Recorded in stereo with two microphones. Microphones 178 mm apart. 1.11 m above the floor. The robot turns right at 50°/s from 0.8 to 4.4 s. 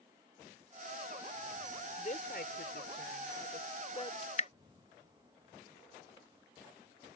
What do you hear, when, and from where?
2.0 s a woman speaking: 40° left; by 4.1 s 150° left
4.2 s dripping: 35° left (ahead or behind); by 4.5 s 40° left (ahead or behind)